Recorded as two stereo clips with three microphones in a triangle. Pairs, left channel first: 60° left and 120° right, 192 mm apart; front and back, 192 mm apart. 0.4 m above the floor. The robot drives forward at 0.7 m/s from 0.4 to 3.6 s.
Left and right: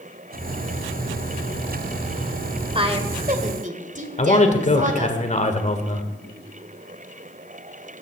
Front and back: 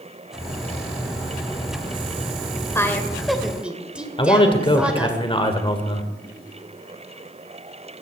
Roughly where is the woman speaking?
Right.